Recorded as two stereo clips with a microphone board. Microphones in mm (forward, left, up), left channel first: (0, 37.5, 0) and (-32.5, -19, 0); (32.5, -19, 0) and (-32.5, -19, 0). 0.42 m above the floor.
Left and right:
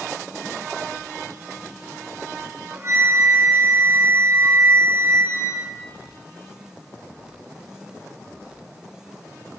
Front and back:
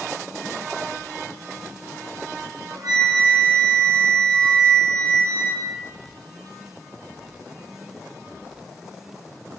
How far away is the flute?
About 8.5 m.